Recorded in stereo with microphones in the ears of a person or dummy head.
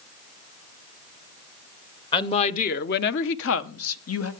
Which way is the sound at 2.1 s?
25° left (ahead or behind).